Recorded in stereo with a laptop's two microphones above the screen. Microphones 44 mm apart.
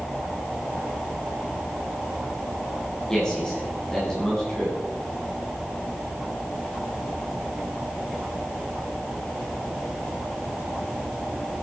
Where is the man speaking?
15° left (ahead or behind), 9 m.